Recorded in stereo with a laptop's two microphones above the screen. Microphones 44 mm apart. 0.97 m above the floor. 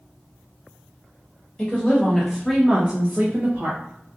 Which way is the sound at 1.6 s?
25° left (ahead or behind).